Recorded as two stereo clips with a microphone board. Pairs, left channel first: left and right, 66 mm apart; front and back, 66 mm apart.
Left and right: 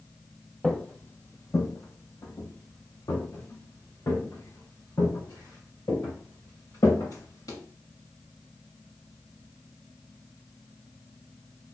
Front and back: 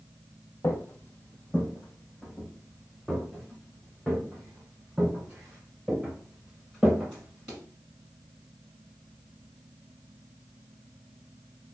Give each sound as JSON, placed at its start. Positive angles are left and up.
{"t": 0.6, "sound": "footsteps", "azimuth_deg": 10, "distance_m": 0.5}